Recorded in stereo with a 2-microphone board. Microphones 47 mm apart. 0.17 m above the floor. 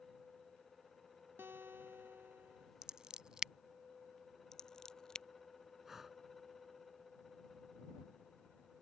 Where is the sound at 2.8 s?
15° right (ahead or behind).